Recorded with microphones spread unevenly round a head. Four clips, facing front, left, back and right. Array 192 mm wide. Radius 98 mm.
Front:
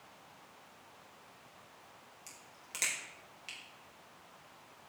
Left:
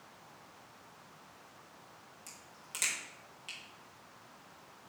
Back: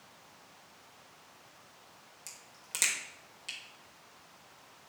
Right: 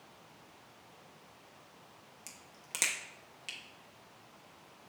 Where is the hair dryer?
I don't hear a hair dryer.